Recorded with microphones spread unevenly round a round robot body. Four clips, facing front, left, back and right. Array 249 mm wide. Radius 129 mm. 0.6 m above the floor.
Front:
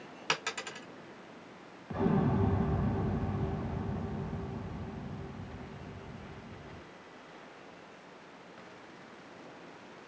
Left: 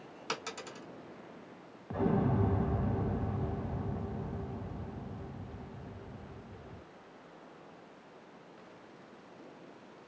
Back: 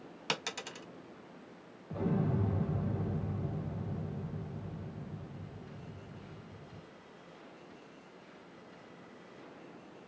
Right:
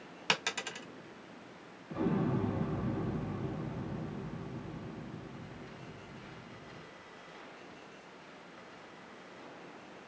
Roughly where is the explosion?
Ahead left.